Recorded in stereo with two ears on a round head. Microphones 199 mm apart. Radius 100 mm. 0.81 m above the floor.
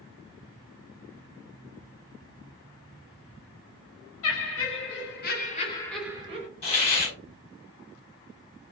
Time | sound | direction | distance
4.2 | laughter | 60° left (ahead or behind) | 2 m
6.6 | a hiss | 30° left (ahead or behind) | 1.6 m